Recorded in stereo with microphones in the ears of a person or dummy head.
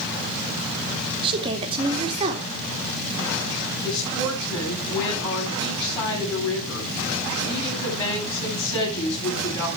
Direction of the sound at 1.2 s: 25° right (ahead or behind).